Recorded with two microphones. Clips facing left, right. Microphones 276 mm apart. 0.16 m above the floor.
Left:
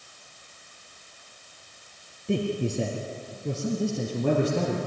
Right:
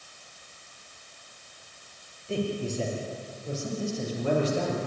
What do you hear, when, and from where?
2.3 s a man speaking: 65° left (ahead or behind), 3 m; by 4.8 s 60° left (ahead or behind), 4.5 m